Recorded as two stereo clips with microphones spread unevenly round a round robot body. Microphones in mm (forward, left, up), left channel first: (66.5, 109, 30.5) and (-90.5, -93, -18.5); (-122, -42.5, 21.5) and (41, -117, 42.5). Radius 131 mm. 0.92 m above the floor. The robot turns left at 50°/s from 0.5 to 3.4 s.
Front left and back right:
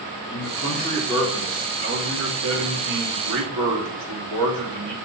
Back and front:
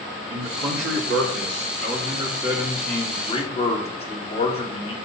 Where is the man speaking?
Straight ahead, 2 m; by 5.0 s 145° right, 2 m.